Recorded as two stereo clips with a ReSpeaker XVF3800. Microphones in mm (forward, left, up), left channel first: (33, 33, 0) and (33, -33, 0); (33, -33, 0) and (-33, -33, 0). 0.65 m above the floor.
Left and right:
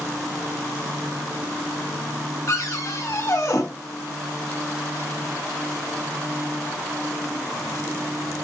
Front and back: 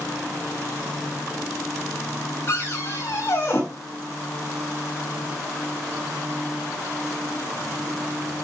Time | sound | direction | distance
2.5 | a cupboard door | 55° left | 4 m